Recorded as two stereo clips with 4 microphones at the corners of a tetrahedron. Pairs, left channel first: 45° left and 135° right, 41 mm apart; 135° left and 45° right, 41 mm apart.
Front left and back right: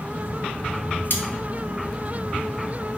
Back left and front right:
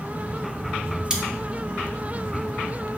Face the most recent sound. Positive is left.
turn(degrees=25)